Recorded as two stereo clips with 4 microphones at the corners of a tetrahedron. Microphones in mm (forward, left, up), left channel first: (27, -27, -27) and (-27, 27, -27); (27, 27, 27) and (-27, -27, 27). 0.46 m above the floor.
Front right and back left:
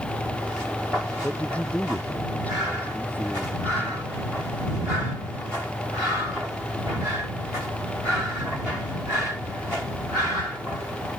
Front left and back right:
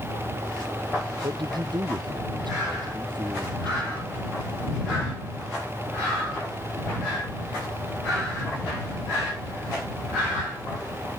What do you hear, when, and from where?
1.2 s a man speaking: 120° right; by 4.0 s 110° right